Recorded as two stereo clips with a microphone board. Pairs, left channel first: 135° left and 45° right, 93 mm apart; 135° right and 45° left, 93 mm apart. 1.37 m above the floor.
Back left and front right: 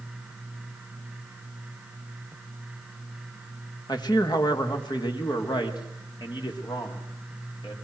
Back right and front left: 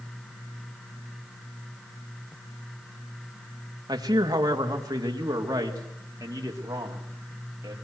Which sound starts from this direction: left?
A man speaking, at 3.9 s.